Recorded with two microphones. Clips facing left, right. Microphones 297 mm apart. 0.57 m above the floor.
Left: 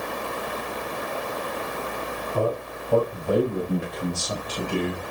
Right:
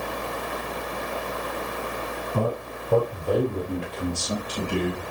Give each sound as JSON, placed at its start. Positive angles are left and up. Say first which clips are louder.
{"t": 2.3, "sound": "a man speaking", "louder": "left 2 dB", "side_deg": -50, "distance_m": 3.0}